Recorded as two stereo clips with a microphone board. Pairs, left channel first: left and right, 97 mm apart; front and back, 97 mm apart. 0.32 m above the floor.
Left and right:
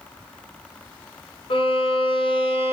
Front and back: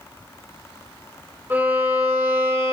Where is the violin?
110° left, 1.1 m.